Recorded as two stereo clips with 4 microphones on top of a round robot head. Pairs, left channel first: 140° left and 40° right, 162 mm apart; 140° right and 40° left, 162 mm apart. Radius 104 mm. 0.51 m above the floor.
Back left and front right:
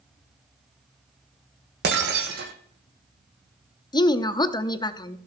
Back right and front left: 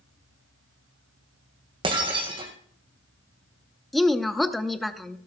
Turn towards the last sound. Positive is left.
turn(degrees=135)